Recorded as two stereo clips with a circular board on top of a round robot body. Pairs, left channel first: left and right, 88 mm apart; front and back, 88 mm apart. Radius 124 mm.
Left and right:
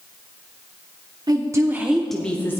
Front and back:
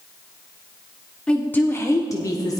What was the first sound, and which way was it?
A woman speaking, 75° right.